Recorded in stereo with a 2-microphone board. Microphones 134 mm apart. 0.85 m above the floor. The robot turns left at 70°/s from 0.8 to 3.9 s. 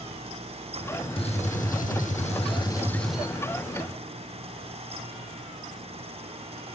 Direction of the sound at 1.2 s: 135° left.